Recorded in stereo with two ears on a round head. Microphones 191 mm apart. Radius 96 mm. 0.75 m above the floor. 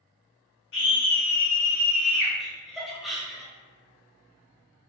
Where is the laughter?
Centre (ahead or behind), 0.7 m.